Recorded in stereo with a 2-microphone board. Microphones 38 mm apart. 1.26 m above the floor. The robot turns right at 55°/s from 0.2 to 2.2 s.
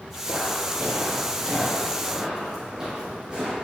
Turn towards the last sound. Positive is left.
turn(degrees=-20)  # may be behind; listen again after turning